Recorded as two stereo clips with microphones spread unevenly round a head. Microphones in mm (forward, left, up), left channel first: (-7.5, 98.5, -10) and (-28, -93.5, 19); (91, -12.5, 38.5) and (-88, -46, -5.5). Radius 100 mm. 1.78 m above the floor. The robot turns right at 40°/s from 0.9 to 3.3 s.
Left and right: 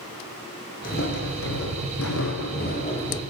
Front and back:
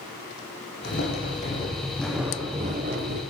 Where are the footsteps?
30° left, 6 m; by 3.2 s 160° left, 4.5 m.